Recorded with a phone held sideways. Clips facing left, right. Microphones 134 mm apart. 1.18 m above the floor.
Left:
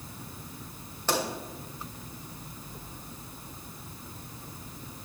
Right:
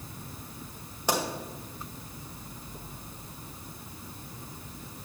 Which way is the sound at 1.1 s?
15° right (ahead or behind).